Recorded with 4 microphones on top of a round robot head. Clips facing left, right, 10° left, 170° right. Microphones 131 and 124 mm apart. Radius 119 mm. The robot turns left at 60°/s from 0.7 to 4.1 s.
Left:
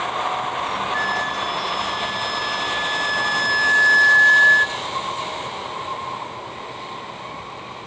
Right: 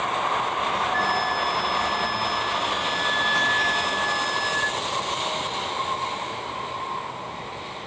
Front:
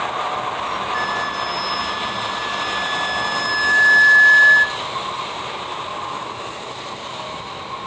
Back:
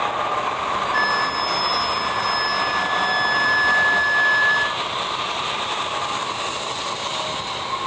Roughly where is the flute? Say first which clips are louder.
Right 1 dB, back 1 dB; behind.